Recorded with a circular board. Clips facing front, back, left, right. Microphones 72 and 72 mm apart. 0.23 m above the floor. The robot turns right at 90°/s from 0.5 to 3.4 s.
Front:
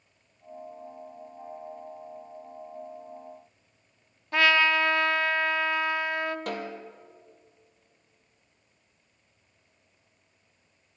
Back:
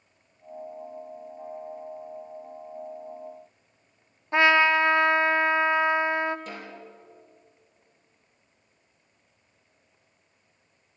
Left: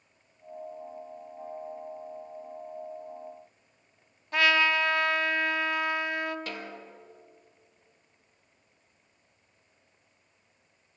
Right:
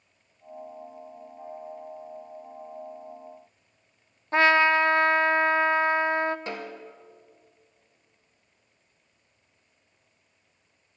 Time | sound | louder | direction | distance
4.3 | a trumpet | back 3 dB, right 5 dB | 125° right | 0.7 m
6.5 | a snare drum | front 5 dB, right 4 dB | 25° right | 2 m